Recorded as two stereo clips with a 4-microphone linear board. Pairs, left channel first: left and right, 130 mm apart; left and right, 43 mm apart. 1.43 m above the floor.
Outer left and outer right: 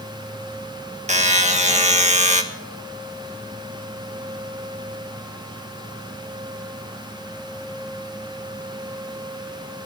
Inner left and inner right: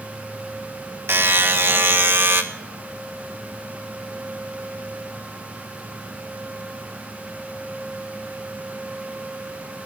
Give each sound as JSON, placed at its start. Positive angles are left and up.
{"t": 1.1, "sound": "a buzzer", "side_deg": -70, "distance_m": 1.5}